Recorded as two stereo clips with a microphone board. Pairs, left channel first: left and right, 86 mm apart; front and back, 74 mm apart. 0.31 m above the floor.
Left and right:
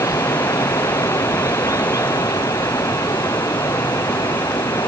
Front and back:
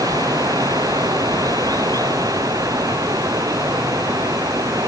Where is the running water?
140° left.